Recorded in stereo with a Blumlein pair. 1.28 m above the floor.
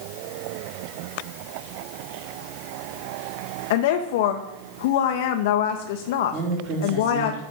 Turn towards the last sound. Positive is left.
turn(degrees=-35)